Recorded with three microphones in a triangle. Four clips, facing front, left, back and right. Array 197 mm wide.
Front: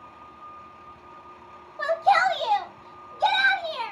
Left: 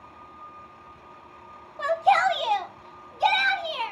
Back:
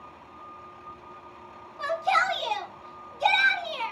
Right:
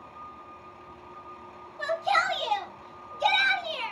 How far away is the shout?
About 2 m.